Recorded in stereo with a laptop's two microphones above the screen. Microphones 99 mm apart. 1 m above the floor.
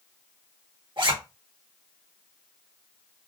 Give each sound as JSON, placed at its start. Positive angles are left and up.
{"t": 1.0, "sound": "a zipper", "side_deg": -55, "distance_m": 1.3}